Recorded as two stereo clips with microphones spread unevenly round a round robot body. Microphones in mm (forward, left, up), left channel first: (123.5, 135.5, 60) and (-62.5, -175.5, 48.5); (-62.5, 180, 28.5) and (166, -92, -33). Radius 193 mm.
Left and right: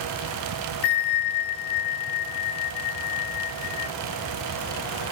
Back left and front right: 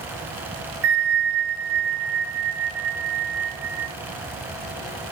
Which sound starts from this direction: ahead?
A bell, at 0.8 s.